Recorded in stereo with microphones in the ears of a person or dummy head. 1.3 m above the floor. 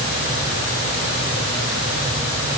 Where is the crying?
I don't hear crying.